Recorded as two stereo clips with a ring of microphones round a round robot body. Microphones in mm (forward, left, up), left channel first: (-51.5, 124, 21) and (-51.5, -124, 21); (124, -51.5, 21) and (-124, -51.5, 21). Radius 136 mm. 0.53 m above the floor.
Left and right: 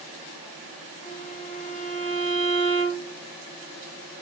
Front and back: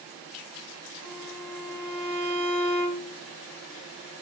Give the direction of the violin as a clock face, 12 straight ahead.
5 o'clock.